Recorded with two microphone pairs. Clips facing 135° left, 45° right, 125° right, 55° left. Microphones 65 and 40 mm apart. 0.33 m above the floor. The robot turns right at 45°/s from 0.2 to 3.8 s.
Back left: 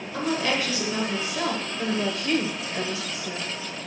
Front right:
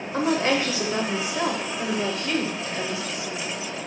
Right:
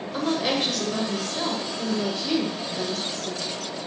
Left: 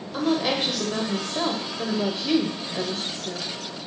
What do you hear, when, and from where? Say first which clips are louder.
0.1 s a woman speaking: front right 4 dB, left 1 dB; 45° right, 0.9 m; by 3.5 s 105° left, 0.9 m